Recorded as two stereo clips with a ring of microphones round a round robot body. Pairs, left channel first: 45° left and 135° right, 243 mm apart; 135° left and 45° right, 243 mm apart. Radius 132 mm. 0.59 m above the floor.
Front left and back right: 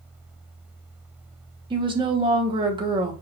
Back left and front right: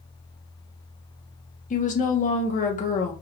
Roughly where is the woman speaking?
Behind.